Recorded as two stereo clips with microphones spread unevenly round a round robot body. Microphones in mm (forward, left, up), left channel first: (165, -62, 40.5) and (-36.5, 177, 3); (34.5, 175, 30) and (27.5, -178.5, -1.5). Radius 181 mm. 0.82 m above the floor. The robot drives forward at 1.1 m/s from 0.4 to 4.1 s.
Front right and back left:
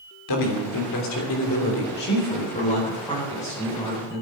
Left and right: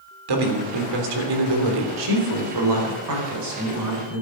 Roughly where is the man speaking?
Right.